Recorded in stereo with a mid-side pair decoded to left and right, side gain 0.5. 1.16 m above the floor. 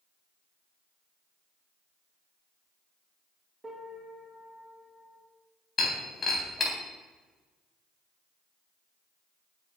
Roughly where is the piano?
Ahead.